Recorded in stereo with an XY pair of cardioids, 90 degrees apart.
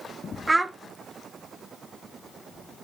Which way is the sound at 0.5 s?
20° right.